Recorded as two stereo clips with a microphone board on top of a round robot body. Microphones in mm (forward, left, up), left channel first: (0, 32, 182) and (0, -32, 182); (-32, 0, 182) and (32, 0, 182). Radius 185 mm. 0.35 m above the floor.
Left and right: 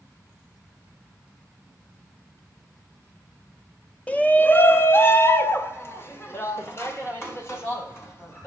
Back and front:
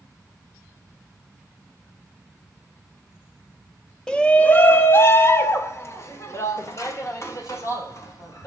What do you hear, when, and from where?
4.1 s a shout: 120° left, 1.0 m; by 8.5 s 140° left, 4 m